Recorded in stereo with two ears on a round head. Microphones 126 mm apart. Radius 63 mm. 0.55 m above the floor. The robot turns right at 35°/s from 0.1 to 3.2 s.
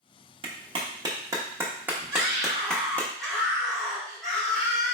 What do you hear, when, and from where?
0.4 s a clap: 40° right (ahead or behind), 0.7 m; by 3.1 s 15° left (ahead or behind), 0.7 m
2.1 s a scream: 35° right, 1.8 m; by 5.0 s 5° left, 1.8 m